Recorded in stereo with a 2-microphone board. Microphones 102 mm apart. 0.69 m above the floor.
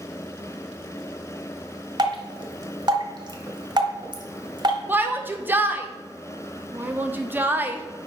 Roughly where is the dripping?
Right.